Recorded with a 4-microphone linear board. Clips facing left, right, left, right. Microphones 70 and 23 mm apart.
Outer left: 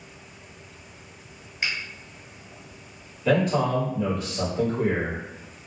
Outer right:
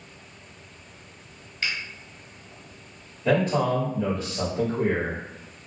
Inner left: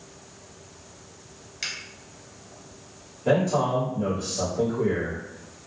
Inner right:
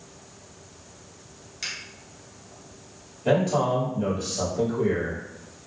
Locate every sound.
1.6 s a finger snap: 20° left (ahead or behind), 1.1 m
3.2 s a man speaking: 25° right (ahead or behind), 1.7 m